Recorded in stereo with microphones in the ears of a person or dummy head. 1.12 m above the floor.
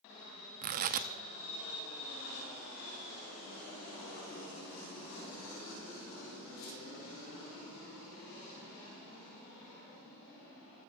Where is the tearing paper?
40° right (ahead or behind), 0.6 m.